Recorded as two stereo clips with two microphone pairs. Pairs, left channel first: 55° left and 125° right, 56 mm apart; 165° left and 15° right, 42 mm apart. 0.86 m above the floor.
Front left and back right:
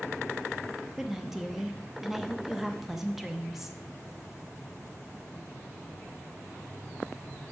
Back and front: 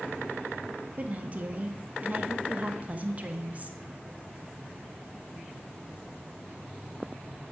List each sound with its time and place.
1.0 s a woman speaking: 45° right, 0.6 m